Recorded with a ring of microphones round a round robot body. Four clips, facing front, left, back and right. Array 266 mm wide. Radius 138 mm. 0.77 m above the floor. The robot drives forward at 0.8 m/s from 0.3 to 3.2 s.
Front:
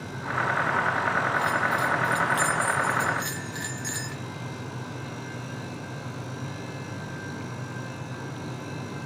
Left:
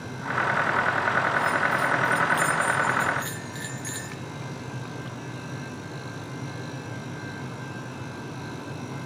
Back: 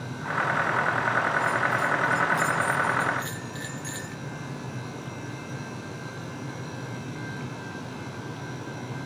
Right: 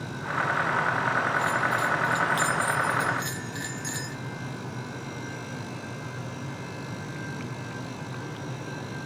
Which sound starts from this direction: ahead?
A bell, at 1.4 s.